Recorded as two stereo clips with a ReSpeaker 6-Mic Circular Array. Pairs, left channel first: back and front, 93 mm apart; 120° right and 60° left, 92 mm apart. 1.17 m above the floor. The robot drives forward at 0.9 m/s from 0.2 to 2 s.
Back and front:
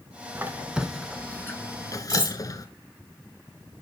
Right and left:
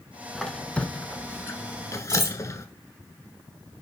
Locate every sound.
0.3 s a squeak: 35° right, 1.2 m; by 2.6 s 160° right, 1.5 m
2.1 s cutlery clinking: 15° left, 1.8 m